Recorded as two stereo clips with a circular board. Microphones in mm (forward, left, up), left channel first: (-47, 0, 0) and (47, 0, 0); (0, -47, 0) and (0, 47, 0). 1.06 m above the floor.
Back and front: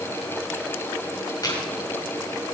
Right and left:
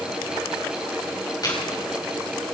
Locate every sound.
1.4 s chewing: 135° right, 5 m